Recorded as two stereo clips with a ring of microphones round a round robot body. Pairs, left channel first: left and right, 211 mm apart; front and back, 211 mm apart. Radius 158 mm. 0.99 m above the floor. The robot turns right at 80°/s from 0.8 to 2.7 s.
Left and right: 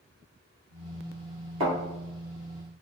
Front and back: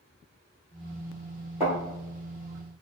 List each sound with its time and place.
1.6 s a thud: 95° right, 1.9 m; by 1.7 s 85° right, 1.9 m